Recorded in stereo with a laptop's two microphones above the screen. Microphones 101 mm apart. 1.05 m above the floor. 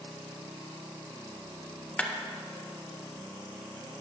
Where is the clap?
15° left (ahead or behind), 0.8 m.